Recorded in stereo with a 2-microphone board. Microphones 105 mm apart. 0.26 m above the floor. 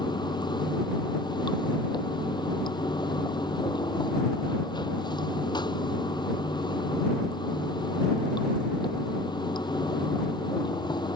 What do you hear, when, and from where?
0.0 s running water: 45° left (ahead or behind)